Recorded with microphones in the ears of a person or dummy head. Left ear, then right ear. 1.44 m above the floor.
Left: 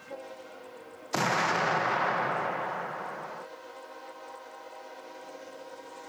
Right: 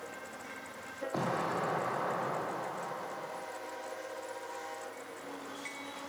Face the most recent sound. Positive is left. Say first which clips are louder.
# left 8 dB
turn(degrees=65)  # may be behind; listen again after turning